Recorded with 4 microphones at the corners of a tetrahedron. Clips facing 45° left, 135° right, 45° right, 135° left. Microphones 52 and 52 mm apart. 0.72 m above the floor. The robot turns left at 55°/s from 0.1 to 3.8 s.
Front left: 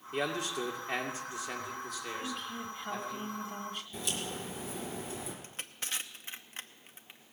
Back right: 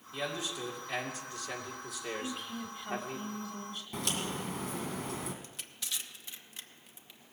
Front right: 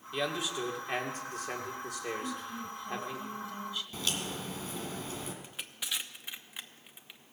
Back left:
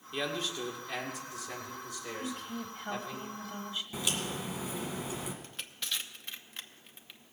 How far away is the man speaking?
About 2.5 m.